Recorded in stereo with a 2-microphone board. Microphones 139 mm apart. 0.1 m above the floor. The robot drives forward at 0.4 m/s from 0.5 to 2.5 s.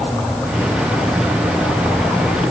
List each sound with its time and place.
Only background noise.